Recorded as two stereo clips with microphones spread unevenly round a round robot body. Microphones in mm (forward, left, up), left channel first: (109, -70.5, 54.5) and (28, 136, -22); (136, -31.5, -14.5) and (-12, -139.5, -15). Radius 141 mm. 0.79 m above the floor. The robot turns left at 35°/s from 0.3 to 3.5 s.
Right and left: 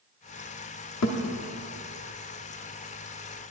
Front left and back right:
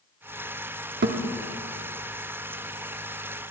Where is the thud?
110° right, 0.8 m; by 1.2 s 115° right, 0.8 m.